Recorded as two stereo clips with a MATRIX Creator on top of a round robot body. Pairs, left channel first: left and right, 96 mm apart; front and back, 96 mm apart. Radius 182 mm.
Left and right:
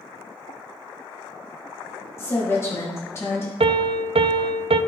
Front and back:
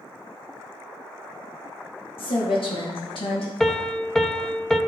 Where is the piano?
85° right, 0.5 m.